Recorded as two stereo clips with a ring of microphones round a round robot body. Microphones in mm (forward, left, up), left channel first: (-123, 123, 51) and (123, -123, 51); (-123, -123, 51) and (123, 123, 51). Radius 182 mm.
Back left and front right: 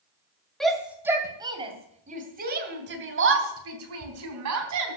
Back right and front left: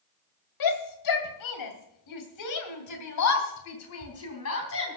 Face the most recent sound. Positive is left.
turn(degrees=-85)